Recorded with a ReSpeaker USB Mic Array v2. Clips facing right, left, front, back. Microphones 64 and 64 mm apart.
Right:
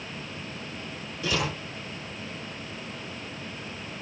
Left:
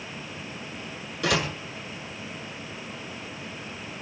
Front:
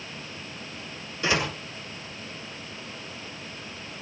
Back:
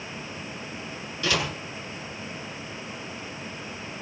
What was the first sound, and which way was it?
A door slam, 65° left.